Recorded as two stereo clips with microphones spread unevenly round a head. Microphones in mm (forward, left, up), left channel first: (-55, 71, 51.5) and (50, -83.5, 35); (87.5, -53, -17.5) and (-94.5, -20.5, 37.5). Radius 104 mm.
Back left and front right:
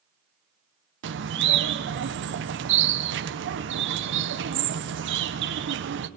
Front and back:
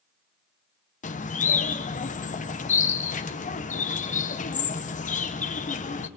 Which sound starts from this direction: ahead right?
A bird, at 1.0 s.